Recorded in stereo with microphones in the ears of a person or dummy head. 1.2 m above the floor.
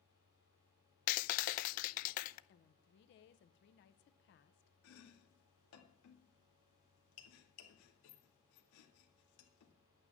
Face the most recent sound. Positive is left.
turn(degrees=80)